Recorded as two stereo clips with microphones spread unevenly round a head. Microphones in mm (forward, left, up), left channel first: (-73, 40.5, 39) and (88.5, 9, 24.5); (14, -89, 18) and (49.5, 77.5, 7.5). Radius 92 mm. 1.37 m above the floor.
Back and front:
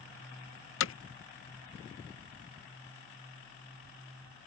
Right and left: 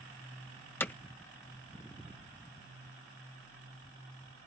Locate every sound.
0.8 s hammering: straight behind